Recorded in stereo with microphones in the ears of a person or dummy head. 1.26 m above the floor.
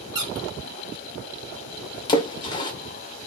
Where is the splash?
20° left (ahead or behind), 0.5 m.